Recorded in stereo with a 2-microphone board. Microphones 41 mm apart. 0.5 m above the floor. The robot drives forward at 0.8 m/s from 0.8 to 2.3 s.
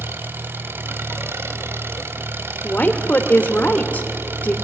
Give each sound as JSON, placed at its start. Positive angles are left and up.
{"t": 0.0, "sound": "an engine running", "side_deg": -65, "distance_m": 1.5}
{"t": 2.6, "sound": "a woman speaking", "side_deg": 40, "distance_m": 1.5}